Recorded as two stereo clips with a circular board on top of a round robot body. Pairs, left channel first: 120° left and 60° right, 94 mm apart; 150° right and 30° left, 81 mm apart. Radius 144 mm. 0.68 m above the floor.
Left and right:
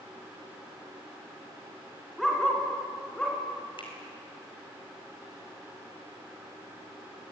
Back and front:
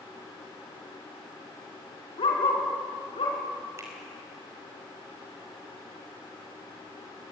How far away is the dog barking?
About 4 m.